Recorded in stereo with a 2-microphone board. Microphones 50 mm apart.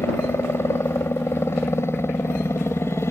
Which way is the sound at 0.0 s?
65° left (ahead or behind).